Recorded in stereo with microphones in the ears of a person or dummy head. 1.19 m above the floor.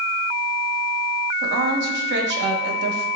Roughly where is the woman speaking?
Right.